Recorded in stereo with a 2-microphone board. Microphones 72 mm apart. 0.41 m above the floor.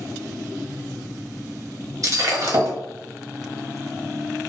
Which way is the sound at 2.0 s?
50° right (ahead or behind).